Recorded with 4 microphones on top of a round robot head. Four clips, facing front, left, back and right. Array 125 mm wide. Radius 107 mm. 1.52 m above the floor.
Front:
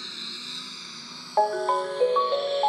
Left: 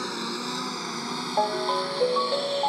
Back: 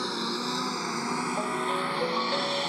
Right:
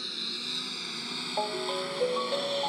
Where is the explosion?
I don't hear an explosion.